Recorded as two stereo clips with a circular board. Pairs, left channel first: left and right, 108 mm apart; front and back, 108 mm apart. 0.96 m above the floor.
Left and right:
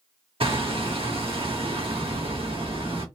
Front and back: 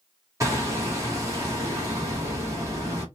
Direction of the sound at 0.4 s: 120° right.